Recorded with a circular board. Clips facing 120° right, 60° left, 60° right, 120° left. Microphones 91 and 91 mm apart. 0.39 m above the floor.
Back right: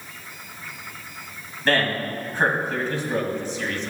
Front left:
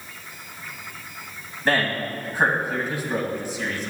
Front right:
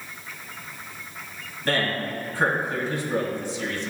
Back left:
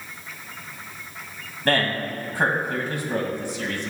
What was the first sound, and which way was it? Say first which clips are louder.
A man speaking: back right 1 dB, back left 2 dB; 140° left.